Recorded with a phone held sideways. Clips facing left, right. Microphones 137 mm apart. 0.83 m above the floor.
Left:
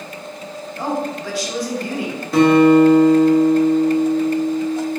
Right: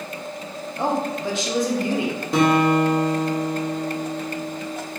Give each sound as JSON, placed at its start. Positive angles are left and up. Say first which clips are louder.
{"t": 0.8, "sound": "a woman speaking", "louder": "even", "side_deg": -20, "distance_m": 0.7}
{"t": 2.3, "sound": "a guitar", "louder": "left 7 dB", "side_deg": -20, "distance_m": 0.8}